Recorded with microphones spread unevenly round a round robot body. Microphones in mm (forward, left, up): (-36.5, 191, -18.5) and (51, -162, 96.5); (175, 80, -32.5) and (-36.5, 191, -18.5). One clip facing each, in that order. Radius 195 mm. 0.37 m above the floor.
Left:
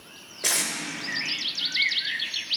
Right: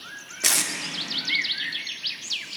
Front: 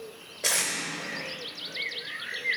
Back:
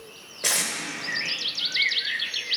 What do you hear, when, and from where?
0.4 s tape being pulled: 115° right, 1.2 m